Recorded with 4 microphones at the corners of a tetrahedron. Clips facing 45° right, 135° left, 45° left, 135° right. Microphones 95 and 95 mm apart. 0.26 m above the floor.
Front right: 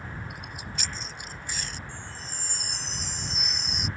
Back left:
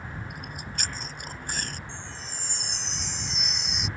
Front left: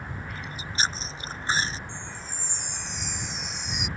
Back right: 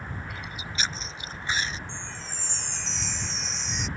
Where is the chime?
30° right.